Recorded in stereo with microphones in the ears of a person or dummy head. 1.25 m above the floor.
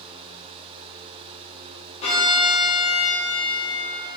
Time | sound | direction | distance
2.0 | a violin | 40° left (ahead or behind) | 0.9 m